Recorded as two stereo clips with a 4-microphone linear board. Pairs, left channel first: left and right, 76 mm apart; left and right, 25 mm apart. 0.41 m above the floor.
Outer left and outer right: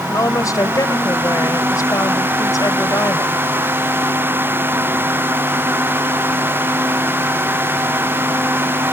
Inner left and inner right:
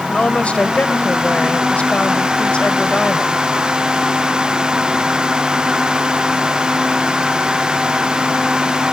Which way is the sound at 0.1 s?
50° left (ahead or behind).